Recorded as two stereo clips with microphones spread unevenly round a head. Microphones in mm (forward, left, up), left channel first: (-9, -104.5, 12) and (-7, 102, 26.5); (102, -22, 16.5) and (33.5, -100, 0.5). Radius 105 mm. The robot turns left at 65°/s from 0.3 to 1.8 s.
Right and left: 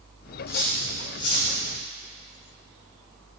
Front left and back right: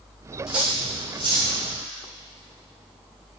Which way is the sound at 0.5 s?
45° right.